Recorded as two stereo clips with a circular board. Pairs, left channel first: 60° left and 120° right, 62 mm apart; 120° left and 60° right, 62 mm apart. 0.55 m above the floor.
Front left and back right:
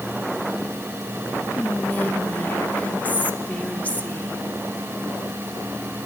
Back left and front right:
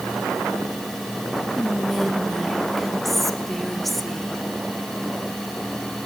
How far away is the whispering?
About 0.9 m.